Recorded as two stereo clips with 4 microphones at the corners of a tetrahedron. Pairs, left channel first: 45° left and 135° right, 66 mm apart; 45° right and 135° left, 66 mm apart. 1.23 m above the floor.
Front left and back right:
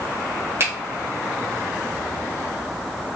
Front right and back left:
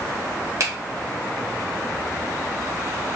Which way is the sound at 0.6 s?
175° left.